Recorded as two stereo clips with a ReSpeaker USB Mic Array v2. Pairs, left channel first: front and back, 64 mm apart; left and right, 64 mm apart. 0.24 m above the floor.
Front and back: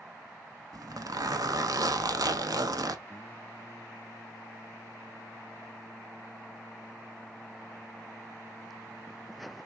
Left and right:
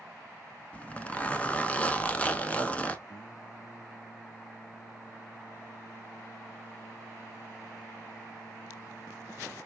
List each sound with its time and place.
0.7 s a zipper: 160° left, 0.5 m
3.1 s singing: 65° left, 1.8 m